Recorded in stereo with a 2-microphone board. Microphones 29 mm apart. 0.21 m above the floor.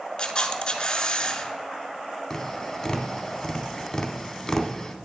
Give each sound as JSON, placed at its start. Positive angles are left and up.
{"t": 0.2, "sound": "a camera shutter", "side_deg": 30, "distance_m": 0.6}
{"t": 2.3, "sound": "tapping", "side_deg": 15, "distance_m": 0.7}